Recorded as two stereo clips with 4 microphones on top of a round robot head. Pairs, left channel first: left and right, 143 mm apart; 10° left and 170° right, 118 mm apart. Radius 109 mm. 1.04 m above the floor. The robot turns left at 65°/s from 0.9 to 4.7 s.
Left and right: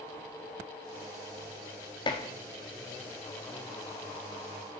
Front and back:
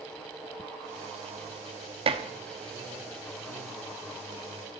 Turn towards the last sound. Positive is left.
turn(degrees=-15)